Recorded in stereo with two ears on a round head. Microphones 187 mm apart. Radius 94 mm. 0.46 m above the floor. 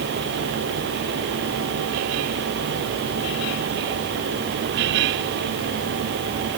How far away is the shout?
No shout in this recording.